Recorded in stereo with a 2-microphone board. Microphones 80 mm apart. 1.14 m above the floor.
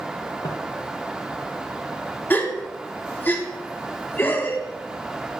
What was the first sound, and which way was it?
Footsteps, 55° left (ahead or behind).